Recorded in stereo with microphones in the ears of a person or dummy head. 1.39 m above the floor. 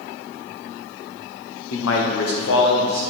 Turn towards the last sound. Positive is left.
turn(degrees=50)  # may be behind; listen again after turning